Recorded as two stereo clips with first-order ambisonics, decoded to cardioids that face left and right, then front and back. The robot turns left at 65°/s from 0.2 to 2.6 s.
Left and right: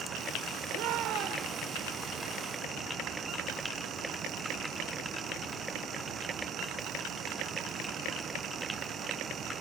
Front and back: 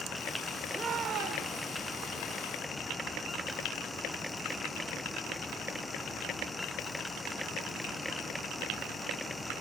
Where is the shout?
105° right, 3 m; by 1.7 s 170° right, 3 m.